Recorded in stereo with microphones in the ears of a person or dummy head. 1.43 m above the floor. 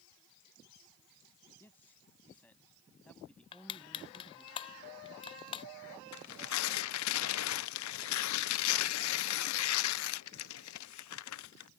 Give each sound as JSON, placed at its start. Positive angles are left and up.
{"t": 1.6, "sound": "a man speaking", "side_deg": 15}
{"t": 3.5, "sound": "crushing", "side_deg": 30}
{"t": 6.1, "sound": "tearing paper", "side_deg": 75}